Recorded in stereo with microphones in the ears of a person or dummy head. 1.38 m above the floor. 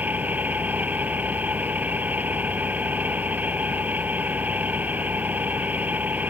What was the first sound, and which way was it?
An engine running, 10° right (ahead or behind).